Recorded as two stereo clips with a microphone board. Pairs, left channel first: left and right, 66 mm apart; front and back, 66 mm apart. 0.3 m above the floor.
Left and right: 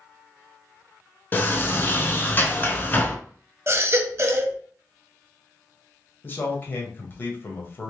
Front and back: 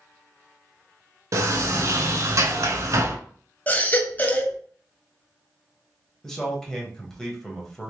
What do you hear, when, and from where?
1.3 s a sliding door: 145° left, 0.6 m
3.7 s a baby crying: 55° right, 0.7 m
6.2 s a man speaking: 75° left, 1.0 m